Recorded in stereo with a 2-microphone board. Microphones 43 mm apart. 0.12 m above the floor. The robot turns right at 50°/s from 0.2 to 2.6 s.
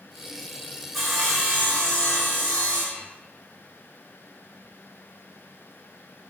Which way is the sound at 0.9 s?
Centre (ahead or behind).